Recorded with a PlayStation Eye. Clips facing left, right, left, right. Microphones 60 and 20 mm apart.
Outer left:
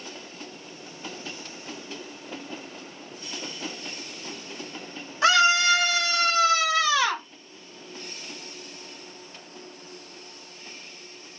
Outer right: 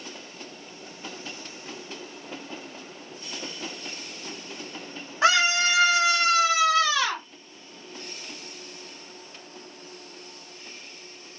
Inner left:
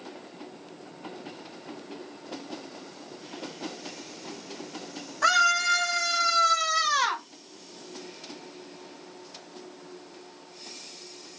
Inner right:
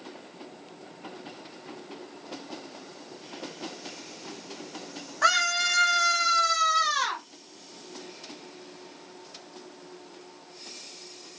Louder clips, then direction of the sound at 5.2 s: Outer left 2 dB, inner left 2 dB; 30° right (ahead or behind).